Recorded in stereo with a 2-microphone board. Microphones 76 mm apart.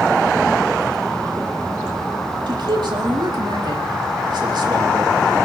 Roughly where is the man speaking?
Right.